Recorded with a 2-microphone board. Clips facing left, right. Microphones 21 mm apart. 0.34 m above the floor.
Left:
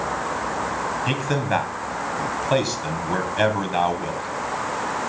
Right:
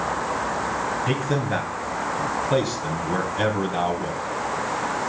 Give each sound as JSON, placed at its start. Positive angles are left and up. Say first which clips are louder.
{"t": 1.1, "sound": "a man speaking", "louder": "left 1 dB", "side_deg": 40, "distance_m": 2.0}